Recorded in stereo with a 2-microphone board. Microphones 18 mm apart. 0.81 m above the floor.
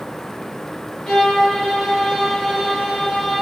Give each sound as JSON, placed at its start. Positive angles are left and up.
{"t": 1.1, "sound": "a violin", "side_deg": 50, "distance_m": 6.0}